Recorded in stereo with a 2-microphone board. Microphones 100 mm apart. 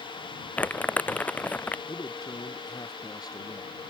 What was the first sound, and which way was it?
Crumpling, 15° left (ahead or behind).